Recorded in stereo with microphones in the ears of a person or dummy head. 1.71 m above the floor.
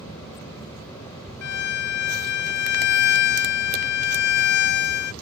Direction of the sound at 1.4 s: 60° left (ahead or behind).